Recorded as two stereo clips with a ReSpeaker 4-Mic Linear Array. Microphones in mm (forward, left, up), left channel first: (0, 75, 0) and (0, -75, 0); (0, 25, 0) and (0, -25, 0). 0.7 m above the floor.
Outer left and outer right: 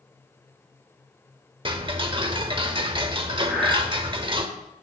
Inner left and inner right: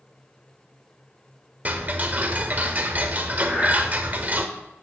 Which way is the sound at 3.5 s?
5° right (ahead or behind).